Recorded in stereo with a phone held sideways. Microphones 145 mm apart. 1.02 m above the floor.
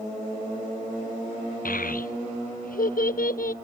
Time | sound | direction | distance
1.6 | a child speaking | 75° left (ahead or behind) | 0.5 m